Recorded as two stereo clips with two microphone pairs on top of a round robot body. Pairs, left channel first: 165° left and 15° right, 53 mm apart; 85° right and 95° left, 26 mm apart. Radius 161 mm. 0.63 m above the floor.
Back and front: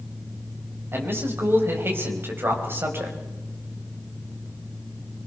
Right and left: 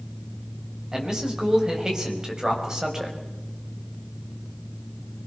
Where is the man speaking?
30° left, 5 m.